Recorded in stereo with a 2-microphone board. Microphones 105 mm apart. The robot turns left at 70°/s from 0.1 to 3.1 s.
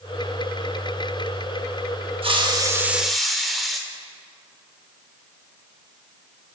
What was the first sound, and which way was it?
A hiss, 120° right.